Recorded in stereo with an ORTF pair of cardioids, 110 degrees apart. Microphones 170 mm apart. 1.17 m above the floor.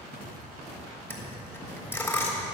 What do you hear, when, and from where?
1.1 s a dropped coin: 10° left, 3 m